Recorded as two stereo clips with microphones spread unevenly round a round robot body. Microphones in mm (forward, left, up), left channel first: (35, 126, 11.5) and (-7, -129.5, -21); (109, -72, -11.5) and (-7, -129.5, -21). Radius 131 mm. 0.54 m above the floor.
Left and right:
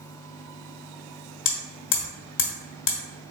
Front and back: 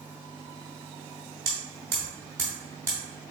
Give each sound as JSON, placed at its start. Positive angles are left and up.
{"t": 1.4, "sound": "hammering", "azimuth_deg": 130, "distance_m": 1.0}